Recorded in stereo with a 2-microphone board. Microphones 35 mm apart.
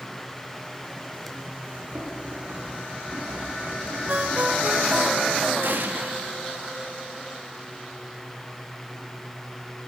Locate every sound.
1.7 s running footsteps: 50° right (ahead or behind), 9 m; by 5.0 s 75° right (ahead or behind), 11 m
4.1 s a ringtone: 55° right (ahead or behind), 1.5 m
5.6 s an explosion: 70° right (ahead or behind), 1.0 m